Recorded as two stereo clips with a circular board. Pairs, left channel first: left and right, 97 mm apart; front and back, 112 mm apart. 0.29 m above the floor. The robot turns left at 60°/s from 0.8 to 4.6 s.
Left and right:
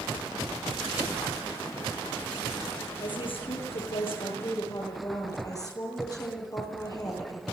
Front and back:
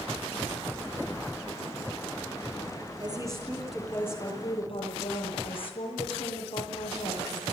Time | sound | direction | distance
3.0 | a woman speaking | 135° left | 10 m